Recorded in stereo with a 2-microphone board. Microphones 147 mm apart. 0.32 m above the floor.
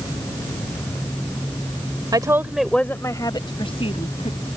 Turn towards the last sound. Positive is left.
turn(degrees=45)  # may be behind; listen again after turning